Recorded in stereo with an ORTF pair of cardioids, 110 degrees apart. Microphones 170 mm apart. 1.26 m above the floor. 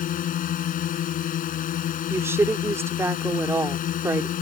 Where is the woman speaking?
15° right.